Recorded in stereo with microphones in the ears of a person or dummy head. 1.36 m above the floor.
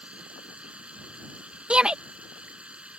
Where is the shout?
5° right (ahead or behind).